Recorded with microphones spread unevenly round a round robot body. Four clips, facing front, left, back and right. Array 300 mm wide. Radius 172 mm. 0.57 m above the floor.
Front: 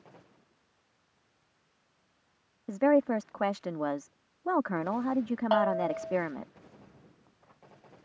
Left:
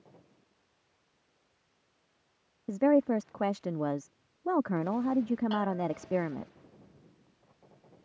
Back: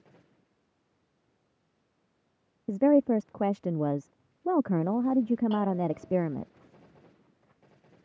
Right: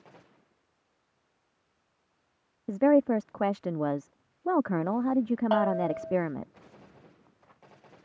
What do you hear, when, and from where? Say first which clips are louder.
2.7 s a woman speaking: right 3 dB, back 2 dB; 145° right
5.5 s a bell: right 6 dB, front 2 dB; 40° right